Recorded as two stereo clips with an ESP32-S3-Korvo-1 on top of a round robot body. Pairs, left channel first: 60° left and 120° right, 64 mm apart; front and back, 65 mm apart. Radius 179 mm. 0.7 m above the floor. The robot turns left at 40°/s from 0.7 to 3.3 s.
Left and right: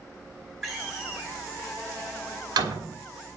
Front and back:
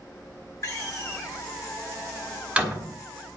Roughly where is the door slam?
Ahead right.